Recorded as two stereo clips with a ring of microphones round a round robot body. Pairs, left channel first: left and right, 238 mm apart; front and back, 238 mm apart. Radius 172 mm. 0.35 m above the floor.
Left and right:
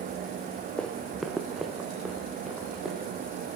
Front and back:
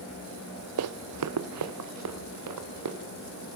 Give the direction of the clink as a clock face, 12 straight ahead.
No clink in this recording.